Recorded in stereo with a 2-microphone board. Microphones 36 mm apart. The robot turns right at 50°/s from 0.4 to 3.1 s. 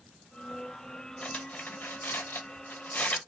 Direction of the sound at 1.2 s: 35° left (ahead or behind).